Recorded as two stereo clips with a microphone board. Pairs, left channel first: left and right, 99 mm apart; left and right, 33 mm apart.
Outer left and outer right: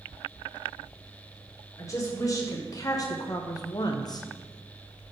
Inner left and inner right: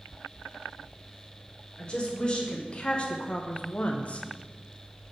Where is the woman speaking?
30° left (ahead or behind), 1.6 m; by 4.3 s 40° left (ahead or behind), 0.6 m.